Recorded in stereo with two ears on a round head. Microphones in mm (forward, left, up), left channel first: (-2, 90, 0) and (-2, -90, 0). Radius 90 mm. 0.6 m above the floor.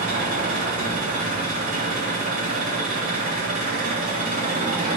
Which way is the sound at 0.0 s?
45° right (ahead or behind).